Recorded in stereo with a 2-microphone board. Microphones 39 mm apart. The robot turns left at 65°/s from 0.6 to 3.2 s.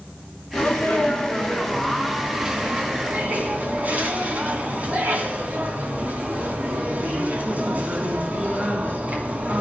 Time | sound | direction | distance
0.5 | a sneeze | 90° left | 2.5 m